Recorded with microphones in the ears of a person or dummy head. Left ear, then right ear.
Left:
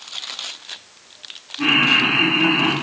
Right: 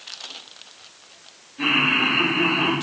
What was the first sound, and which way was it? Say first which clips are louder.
Laughter: left 4 dB; 35° right (ahead or behind).